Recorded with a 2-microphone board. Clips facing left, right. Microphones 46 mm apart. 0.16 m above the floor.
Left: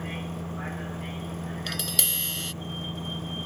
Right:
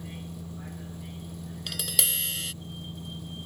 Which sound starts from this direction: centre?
Tapping, at 1.7 s.